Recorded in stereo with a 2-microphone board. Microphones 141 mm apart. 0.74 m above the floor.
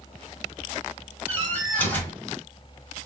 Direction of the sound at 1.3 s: 15° left (ahead or behind).